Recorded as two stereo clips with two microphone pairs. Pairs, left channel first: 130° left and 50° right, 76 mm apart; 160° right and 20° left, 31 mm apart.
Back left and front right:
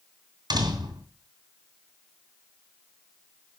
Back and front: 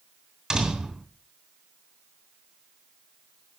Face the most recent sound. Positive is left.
turn(degrees=-50)